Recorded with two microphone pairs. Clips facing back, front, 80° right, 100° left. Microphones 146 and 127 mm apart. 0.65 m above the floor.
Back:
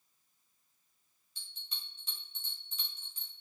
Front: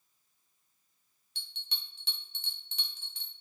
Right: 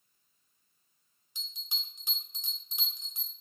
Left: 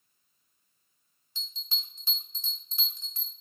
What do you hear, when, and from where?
1.4 s a bell: 10° right, 1.0 m